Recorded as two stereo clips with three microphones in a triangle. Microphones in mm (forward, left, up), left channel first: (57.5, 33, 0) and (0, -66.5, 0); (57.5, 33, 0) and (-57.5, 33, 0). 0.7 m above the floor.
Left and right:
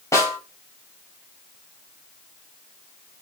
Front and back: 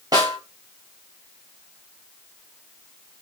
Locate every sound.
0.1 s a snare drum: 125° left, 1.8 m